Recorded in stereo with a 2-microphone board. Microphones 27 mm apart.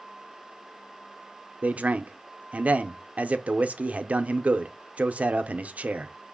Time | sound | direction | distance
1.6 | a man speaking | 60° right (ahead or behind) | 0.5 m